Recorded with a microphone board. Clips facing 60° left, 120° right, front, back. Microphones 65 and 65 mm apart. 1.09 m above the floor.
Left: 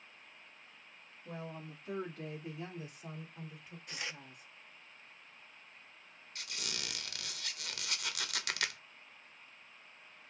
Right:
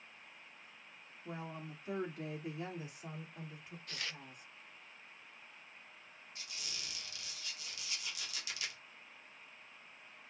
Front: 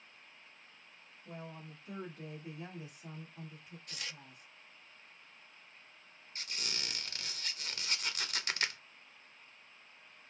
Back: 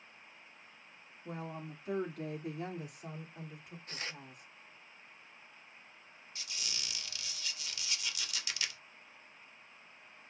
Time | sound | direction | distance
1.2 | a woman speaking | 175° left | 1.5 m
3.9 | tearing paper | 130° left | 0.6 m
6.3 | a squeak | 40° left | 0.6 m